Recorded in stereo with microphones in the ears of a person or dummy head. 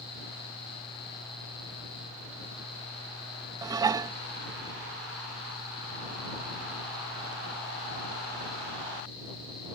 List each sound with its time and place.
3.6 s dishes clattering: 15° right (ahead or behind)